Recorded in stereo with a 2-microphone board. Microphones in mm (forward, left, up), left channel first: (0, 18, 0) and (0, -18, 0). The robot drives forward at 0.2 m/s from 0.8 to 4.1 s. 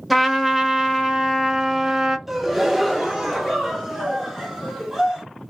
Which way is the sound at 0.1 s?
5° right (ahead or behind).